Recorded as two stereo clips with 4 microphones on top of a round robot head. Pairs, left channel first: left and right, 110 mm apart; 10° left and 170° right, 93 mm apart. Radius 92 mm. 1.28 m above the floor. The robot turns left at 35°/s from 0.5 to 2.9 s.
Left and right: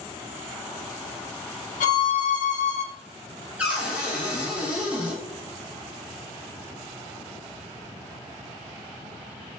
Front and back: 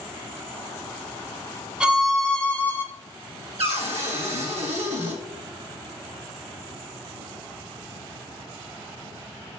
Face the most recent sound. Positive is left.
turn(degrees=-170)